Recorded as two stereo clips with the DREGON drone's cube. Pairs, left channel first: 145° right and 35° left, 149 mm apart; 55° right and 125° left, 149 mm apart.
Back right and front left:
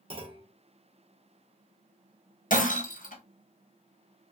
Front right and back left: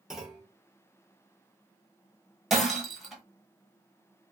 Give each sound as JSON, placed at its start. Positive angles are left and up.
{"t": 0.1, "sound": "a clunk", "azimuth_deg": 40, "distance_m": 0.6}
{"t": 2.5, "sound": "breaking glass", "azimuth_deg": -145, "distance_m": 1.1}